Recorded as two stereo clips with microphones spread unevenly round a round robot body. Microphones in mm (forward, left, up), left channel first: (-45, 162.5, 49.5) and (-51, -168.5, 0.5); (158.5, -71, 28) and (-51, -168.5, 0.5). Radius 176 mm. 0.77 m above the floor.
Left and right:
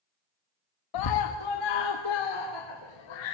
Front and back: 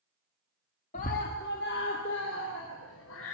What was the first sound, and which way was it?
A scream, 90° left.